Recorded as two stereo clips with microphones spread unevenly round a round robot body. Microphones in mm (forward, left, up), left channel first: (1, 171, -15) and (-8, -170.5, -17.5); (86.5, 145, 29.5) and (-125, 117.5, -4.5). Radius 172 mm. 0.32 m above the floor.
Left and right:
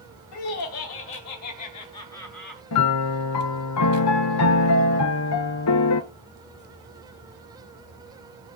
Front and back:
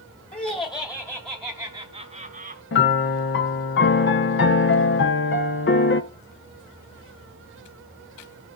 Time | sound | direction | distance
0.3 | laughter | 65° left | 1.8 m
2.7 | a piano | 40° left | 0.9 m